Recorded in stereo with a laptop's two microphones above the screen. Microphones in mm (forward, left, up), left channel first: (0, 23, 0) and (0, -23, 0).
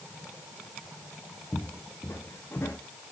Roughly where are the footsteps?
Left.